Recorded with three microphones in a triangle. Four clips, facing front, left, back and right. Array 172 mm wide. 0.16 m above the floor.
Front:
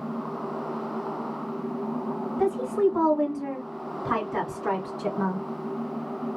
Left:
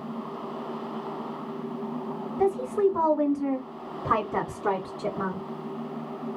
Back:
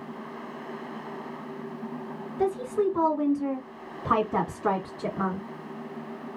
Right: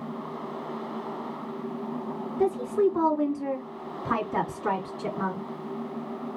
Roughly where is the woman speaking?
Ahead left.